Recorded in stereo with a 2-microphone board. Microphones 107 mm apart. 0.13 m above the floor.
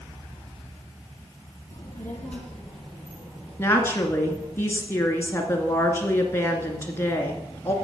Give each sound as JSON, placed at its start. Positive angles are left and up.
{"t": 1.7, "sound": "a child speaking", "side_deg": 30, "distance_m": 3.0}
{"t": 3.6, "sound": "a woman speaking", "side_deg": 25, "distance_m": 2.0}